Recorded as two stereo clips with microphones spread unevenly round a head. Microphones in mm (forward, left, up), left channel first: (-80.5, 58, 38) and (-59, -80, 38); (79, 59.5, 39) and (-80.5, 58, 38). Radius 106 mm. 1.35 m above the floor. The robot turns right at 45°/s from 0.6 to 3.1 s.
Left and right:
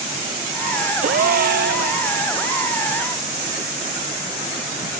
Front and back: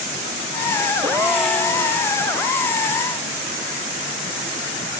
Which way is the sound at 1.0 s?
110° right.